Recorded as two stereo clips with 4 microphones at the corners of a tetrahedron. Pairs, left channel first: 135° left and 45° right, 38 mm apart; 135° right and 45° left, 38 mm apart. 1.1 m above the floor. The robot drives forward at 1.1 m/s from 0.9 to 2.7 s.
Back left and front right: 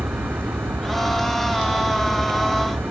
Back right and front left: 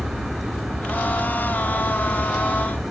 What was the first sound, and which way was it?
A vehicle, 40° right.